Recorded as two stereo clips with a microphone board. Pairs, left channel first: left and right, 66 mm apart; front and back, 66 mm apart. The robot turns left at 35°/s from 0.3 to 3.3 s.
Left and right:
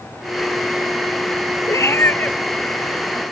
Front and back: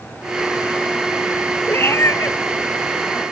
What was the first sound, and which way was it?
A cat meowing, 55° left.